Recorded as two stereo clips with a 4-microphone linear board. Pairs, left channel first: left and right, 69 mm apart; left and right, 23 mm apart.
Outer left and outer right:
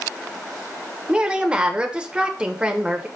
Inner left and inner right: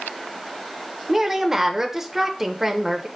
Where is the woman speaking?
15° right (ahead or behind), 1.1 m.